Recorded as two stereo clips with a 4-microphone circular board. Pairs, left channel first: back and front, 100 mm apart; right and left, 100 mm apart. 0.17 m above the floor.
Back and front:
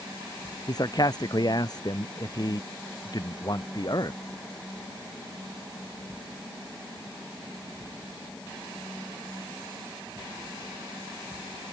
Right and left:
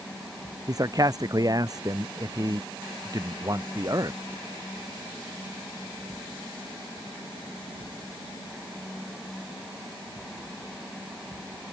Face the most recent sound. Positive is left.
turn(degrees=135)